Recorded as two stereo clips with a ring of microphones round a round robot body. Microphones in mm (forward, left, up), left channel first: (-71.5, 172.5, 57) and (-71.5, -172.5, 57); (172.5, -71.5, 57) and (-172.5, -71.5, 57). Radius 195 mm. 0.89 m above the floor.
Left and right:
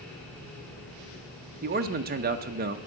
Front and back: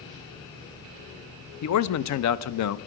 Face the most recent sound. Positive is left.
turn(degrees=-30)